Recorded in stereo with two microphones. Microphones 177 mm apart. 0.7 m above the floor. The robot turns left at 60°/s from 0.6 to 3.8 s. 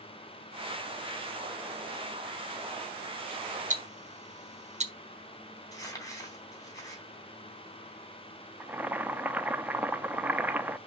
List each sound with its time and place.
3.7 s ticking: 45° right (ahead or behind), 1.0 m; by 4.9 s 40° right (ahead or behind), 1.0 m
5.7 s crumpling: 20° left (ahead or behind), 3 m
8.6 s boiling: 10° right (ahead or behind), 0.6 m